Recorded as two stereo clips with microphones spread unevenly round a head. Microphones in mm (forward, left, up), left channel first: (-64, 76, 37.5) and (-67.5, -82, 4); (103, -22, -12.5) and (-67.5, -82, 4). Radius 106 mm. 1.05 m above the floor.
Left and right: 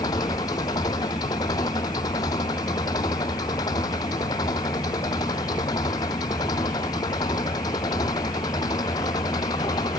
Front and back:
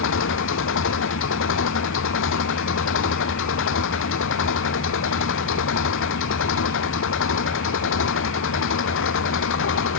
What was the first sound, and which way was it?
An engine running, 15° left.